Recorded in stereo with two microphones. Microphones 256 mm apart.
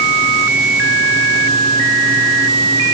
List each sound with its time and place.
Only background noise.